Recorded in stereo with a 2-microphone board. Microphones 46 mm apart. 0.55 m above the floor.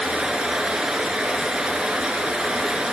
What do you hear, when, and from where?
0.0 s running water: 20° right (ahead or behind), 3 m